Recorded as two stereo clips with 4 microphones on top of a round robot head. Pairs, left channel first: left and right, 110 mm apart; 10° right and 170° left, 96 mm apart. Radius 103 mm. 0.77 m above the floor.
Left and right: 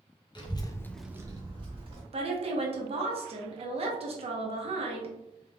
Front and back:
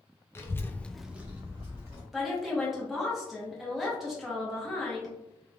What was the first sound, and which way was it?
A child speaking, 50° left.